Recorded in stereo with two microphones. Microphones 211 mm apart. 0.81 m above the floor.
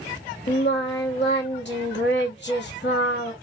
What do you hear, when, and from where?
0.5 s singing: 55° left (ahead or behind), 1.0 m